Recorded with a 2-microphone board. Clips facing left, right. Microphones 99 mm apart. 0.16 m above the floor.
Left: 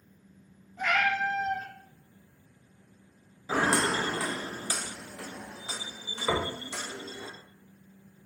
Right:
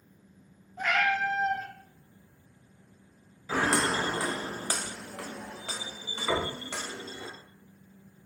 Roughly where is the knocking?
Left.